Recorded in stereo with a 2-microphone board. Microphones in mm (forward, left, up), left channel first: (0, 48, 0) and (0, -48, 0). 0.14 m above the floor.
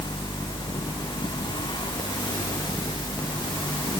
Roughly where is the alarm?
No alarm in this recording.